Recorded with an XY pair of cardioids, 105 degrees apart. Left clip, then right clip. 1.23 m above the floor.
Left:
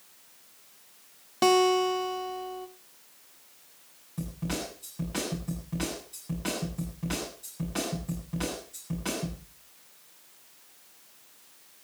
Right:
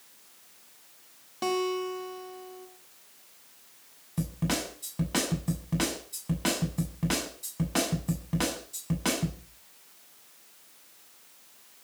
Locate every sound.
1.4 s a guitar: 55° left, 1.4 m
4.2 s a snare drum: 50° right, 8.5 m